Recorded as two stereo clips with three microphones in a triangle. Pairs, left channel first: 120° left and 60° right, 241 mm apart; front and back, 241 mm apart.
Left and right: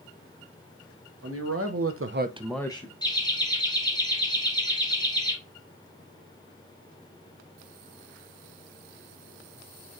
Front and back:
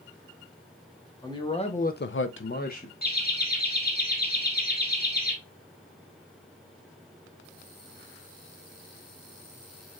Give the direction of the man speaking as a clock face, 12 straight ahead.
2 o'clock.